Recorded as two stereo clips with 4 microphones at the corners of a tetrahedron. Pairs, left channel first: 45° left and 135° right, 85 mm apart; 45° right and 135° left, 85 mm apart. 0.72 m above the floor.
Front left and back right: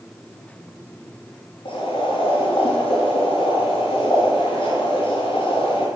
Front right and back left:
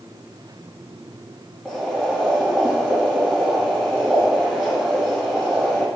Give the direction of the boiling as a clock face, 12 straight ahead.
11 o'clock.